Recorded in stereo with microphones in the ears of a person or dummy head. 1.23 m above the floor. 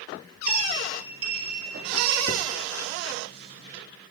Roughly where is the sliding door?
Right.